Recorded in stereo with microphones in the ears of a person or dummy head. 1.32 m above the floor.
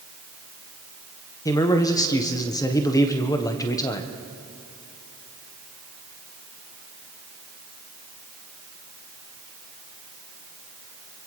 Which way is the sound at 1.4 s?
15° left (ahead or behind).